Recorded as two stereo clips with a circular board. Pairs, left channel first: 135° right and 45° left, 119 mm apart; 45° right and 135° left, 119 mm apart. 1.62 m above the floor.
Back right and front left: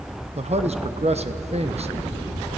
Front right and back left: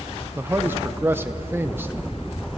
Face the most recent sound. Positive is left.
turn(degrees=65)